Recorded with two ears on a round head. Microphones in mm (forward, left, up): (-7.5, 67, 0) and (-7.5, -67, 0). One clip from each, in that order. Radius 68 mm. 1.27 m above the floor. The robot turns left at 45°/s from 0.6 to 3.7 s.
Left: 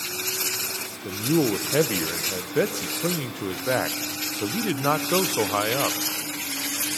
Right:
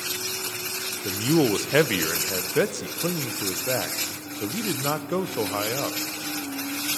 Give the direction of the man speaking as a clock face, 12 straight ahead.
3 o'clock.